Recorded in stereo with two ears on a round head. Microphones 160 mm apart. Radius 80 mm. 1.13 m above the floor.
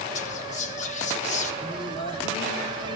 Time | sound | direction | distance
0.1 | whispering | 40° left (ahead or behind) | 1.3 m
1.6 | singing | 30° left (ahead or behind) | 1.8 m